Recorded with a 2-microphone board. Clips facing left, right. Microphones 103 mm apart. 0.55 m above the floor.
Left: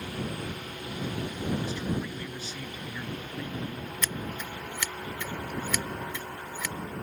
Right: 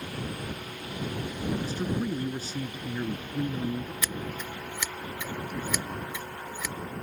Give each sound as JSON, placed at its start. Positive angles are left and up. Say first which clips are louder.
{"t": 1.6, "sound": "a man speaking", "louder": "right 2 dB", "side_deg": -40}
{"t": 4.0, "sound": "scissors", "louder": "even", "side_deg": -10}